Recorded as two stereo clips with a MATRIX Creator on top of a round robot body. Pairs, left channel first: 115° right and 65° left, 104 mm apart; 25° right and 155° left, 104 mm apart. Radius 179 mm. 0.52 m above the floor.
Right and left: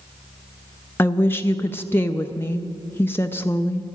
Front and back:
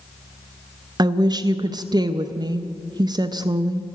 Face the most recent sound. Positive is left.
turn(degrees=-175)